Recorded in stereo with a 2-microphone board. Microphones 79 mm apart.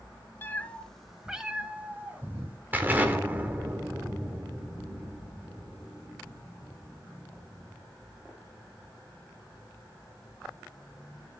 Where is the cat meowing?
30° left (ahead or behind), 0.9 m; by 2.6 s 25° right (ahead or behind), 2.5 m.